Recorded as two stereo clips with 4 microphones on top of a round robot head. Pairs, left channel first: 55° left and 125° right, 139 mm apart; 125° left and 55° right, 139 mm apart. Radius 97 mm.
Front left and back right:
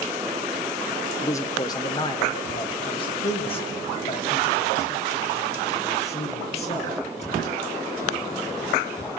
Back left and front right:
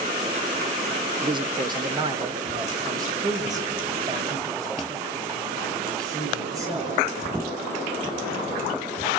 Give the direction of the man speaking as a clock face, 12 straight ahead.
12 o'clock.